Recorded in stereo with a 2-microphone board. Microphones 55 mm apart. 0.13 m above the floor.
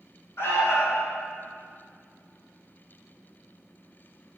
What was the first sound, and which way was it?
An alarm, 50° left (ahead or behind).